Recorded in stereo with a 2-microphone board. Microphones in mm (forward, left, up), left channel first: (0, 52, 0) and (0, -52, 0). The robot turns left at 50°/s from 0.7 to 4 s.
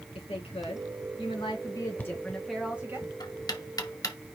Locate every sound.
0.1 s a woman speaking: 90° left, 3 m; by 3.0 s 25° right, 3 m
2.0 s knocking: 15° left (ahead or behind), 1.2 m; by 4.2 s 30° left (ahead or behind), 1.2 m